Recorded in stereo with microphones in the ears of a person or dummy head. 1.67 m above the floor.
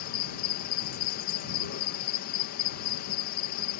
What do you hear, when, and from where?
0.0 s an insect: 55° left (ahead or behind)